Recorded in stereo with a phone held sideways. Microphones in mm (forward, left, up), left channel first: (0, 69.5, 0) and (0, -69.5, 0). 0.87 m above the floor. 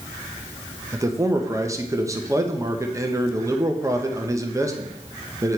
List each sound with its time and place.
0.9 s a man speaking: 20° right (ahead or behind), 0.7 m